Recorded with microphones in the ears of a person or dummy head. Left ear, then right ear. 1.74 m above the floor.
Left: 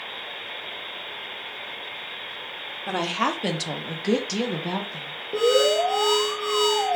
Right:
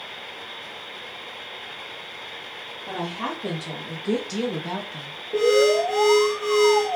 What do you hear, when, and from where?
2.9 s a woman speaking: 65° left (ahead or behind), 0.9 m; by 5.2 s 30° right (ahead or behind), 0.8 m
5.3 s an alarm: centre (ahead or behind), 0.8 m